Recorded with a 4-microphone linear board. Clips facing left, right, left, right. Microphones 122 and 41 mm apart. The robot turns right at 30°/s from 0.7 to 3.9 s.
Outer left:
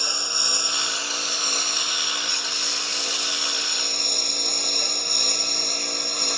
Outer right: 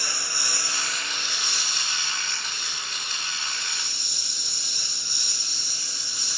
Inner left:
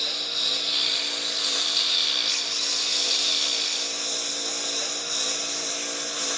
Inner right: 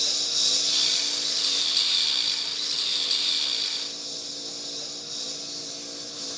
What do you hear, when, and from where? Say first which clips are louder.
0.0 s a lawn mower: outer left 2 dB, inner left 1 dB; 20° left; by 6.4 s 115° left